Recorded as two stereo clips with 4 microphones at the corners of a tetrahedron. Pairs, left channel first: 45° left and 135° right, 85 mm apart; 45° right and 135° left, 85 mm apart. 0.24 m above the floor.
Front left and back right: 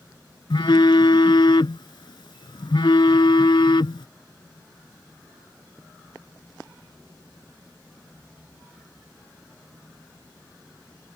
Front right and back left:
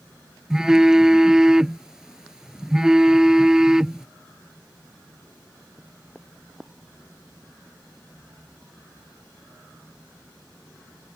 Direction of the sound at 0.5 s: 55° left.